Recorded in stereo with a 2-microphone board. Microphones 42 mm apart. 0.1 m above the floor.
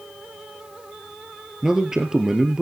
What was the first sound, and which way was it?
A man speaking, 15° right (ahead or behind).